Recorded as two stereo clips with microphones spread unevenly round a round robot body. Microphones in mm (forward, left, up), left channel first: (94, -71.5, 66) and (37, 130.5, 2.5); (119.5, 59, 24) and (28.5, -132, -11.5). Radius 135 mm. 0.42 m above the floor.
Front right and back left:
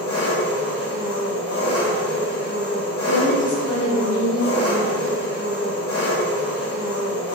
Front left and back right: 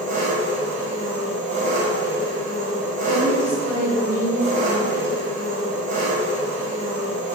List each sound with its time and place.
0.0 s an engine running: 65° right, 1.4 m
3.0 s a woman speaking: 40° right, 1.4 m